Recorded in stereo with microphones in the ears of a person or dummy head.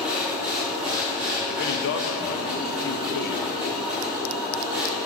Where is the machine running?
5° right (ahead or behind), 2 m.